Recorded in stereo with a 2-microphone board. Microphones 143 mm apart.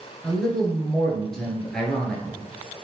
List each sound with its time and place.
0.2 s a man speaking: 5° left (ahead or behind), 1.7 m